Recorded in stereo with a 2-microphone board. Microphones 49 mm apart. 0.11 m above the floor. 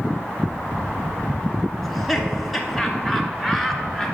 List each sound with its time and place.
1.8 s laughter: centre (ahead or behind), 1.1 m